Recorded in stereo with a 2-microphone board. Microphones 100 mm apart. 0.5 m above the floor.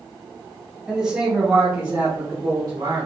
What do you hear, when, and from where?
0.9 s a man speaking: 5° right (ahead or behind), 2.0 m; by 3.1 s 50° right (ahead or behind), 1.5 m